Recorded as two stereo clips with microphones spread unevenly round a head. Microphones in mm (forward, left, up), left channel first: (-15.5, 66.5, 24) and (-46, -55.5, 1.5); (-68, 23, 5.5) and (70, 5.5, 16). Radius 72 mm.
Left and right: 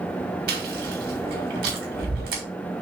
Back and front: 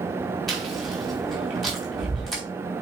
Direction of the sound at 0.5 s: 100° right.